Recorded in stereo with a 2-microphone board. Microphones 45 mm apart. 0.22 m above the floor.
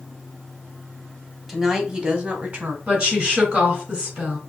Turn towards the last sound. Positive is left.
turn(degrees=-20)  # may be behind; listen again after turning